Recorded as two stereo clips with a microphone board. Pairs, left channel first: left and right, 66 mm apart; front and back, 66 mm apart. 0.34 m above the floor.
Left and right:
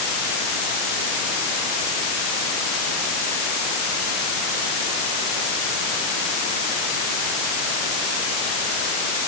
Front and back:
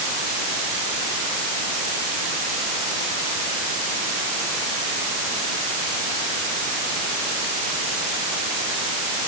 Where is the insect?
No insect in this recording.